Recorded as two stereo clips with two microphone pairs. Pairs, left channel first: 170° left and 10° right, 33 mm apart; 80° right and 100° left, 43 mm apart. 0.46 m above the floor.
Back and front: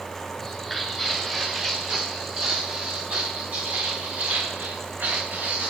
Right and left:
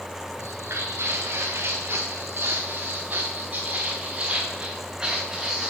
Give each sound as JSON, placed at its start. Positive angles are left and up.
{"t": 0.4, "sound": "footsteps", "azimuth_deg": 85, "distance_m": 3.5}